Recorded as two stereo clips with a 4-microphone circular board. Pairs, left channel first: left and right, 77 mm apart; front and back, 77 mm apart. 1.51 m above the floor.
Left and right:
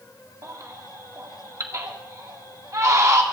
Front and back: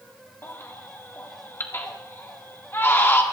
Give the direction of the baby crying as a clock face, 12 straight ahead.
2 o'clock.